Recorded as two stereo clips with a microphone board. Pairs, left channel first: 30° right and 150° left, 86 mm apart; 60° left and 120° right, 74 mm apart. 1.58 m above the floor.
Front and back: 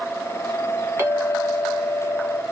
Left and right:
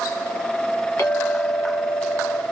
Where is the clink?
95° left, 1.1 m.